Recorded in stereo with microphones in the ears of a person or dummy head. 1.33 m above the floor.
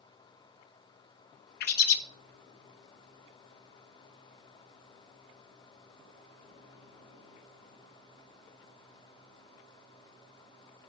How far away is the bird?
About 0.7 m.